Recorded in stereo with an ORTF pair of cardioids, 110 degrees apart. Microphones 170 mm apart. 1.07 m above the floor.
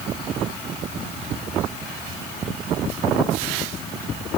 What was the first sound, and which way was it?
Only background noise.